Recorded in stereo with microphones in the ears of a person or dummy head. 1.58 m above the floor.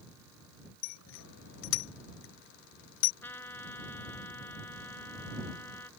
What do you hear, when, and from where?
0.8 s a bicycle bell: 80° left
3.2 s a trumpet: 15° left (ahead or behind)